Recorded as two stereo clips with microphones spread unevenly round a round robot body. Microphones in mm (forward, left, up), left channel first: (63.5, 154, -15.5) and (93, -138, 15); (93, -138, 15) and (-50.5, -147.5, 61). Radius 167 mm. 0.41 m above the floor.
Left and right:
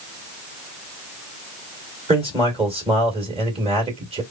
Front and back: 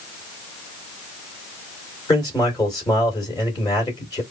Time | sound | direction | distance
2.1 | a man speaking | 15° right | 1.9 m